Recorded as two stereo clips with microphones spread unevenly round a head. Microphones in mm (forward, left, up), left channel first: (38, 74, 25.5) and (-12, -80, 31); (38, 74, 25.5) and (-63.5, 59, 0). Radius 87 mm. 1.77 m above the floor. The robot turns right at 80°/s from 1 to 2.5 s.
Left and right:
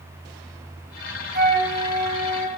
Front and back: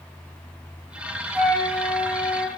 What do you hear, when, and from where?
1.3 s a flute: 85° right, 1.0 m; by 2.5 s 10° left, 1.0 m